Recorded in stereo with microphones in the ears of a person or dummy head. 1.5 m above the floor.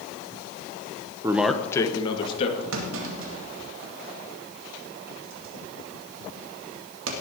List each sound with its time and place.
1.2 s a man speaking: 20° right (ahead or behind), 0.9 m; by 2.6 s 40° left (ahead or behind), 2.5 m
2.7 s a clunk: 75° right (ahead or behind), 2 m